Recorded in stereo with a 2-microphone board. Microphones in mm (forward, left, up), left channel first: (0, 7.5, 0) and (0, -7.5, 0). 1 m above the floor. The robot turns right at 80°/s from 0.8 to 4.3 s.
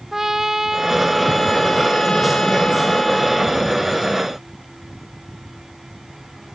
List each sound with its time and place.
0.1 s a trumpet: 25° right; by 3.6 s 160° right